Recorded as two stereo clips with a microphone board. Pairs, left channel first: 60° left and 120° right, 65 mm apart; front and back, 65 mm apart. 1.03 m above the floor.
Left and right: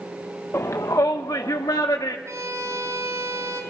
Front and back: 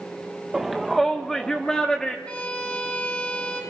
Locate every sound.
0.5 s a shout: 95° left, 0.7 m; by 2.1 s 80° left, 2 m
2.2 s a violin: 75° right, 6 m